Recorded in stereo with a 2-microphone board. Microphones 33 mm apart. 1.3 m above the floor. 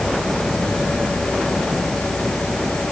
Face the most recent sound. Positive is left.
No sound to turn to.